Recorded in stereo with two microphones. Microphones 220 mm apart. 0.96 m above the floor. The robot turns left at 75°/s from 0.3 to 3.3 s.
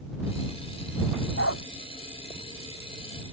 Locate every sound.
1.4 s a dog barking: 70° left (ahead or behind); by 1.6 s 90° left